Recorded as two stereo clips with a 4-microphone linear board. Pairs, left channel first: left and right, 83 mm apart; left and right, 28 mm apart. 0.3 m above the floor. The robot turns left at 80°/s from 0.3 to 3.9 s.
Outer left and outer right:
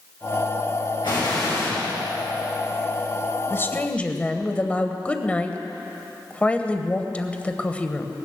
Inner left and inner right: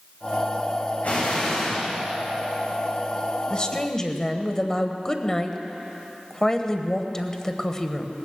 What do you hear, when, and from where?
1.0 s an explosion: 80° left, 6.5 m; by 1.9 s 5° left, 6.5 m
3.5 s a woman speaking: 65° left, 1.0 m; by 8.2 s 30° left, 1.0 m